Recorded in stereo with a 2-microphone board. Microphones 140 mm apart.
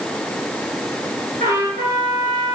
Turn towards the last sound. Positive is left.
turn(degrees=-85)